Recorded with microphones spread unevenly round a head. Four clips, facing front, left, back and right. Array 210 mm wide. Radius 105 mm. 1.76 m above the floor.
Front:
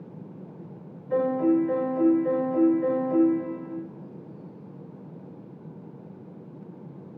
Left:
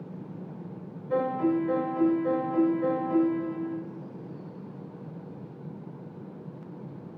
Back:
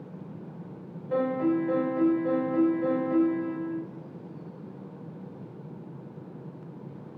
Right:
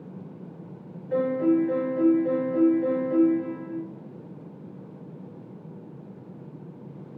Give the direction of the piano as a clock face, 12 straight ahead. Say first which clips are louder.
Right 3 dB, front 3 dB; 10 o'clock.